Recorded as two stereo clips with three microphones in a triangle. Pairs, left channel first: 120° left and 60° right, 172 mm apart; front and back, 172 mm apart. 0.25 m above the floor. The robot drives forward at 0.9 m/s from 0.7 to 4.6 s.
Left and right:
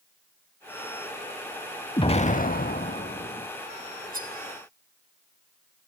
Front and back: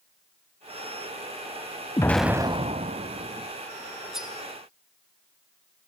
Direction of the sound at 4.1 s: 90° right.